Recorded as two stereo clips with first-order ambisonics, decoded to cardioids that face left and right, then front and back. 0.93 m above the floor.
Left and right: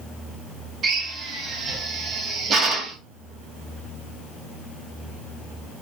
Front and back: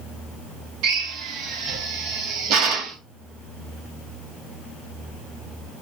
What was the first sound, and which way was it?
A drill, 150° right.